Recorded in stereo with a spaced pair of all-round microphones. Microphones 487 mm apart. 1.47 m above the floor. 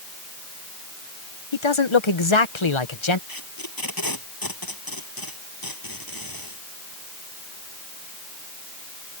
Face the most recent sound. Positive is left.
turn(degrees=45)  # may be behind; listen again after turning